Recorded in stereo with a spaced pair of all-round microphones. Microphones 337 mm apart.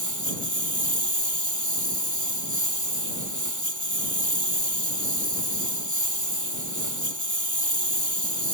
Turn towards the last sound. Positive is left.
turn(degrees=-60)  # may be behind; listen again after turning